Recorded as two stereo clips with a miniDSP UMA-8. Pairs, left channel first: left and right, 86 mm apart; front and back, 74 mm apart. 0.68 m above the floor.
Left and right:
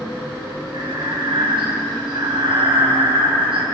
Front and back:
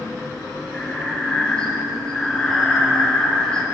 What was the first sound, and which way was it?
Breathing, 75° right.